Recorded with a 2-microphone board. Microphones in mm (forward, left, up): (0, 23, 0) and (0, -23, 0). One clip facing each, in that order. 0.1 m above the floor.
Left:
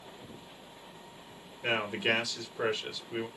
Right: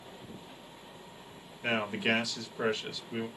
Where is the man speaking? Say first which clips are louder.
Even; centre (ahead or behind), 1.5 m.